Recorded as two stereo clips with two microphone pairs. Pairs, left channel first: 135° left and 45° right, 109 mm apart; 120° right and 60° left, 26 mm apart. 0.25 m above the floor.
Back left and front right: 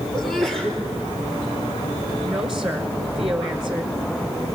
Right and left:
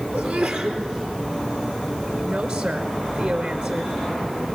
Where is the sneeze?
50° left, 6 m.